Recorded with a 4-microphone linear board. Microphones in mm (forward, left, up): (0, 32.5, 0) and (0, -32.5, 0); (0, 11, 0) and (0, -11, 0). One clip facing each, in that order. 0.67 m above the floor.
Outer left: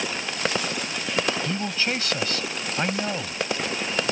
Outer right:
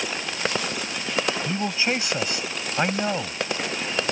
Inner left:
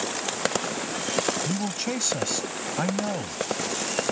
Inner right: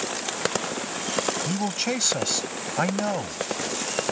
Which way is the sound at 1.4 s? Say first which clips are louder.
Outer right 2 dB, inner right 2 dB; 15° right (ahead or behind).